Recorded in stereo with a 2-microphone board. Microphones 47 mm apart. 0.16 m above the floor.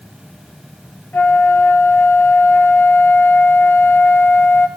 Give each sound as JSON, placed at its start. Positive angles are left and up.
{"t": 1.1, "sound": "a flute", "side_deg": 50, "distance_m": 2.5}